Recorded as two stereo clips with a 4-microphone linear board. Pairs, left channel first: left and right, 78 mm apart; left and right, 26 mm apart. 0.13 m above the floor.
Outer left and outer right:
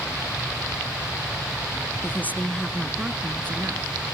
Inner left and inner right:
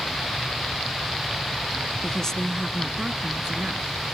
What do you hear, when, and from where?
2.0 s a woman speaking: 30° left (ahead or behind), 1.5 m; by 3.9 s 35° right (ahead or behind), 1.9 m